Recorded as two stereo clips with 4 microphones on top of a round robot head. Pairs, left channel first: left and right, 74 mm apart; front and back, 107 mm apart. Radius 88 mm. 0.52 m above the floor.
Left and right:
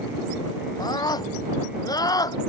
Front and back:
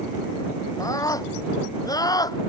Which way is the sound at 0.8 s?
60° left.